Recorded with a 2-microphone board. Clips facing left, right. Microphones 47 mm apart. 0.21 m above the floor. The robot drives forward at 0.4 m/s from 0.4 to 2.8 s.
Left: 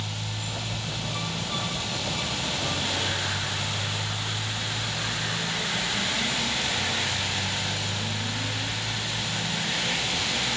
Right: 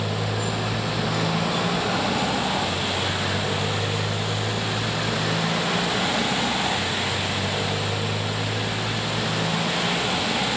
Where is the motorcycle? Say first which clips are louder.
Right 9 dB; 90° right; by 10.6 s 65° right (ahead or behind).